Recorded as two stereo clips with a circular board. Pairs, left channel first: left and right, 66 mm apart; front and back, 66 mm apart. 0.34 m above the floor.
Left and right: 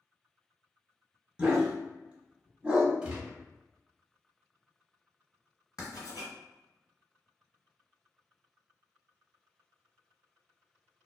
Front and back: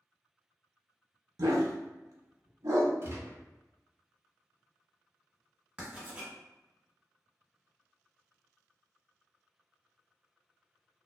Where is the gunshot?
160° right, 0.7 m.